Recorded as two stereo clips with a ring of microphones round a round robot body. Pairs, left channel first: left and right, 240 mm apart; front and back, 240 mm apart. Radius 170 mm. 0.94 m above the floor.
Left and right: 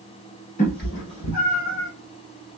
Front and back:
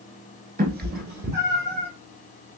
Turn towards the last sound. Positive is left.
turn(degrees=130)